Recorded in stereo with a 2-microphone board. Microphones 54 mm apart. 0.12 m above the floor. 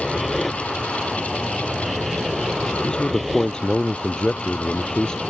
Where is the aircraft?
5° right (ahead or behind); by 5.3 s 5° left (ahead or behind).